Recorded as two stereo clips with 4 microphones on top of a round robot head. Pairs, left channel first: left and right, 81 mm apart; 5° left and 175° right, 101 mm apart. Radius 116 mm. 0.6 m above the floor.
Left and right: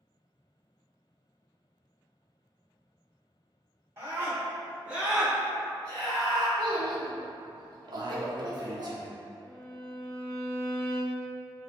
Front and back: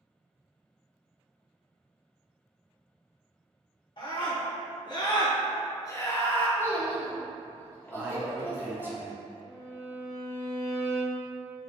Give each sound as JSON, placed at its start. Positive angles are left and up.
{"t": 4.0, "sound": "a scream", "azimuth_deg": -30, "distance_m": 1.9}
{"t": 6.6, "sound": "a child speaking", "azimuth_deg": -65, "distance_m": 1.0}
{"t": 7.9, "sound": "a man speaking", "azimuth_deg": -110, "distance_m": 1.1}
{"t": 9.4, "sound": "a violin", "azimuth_deg": 15, "distance_m": 1.3}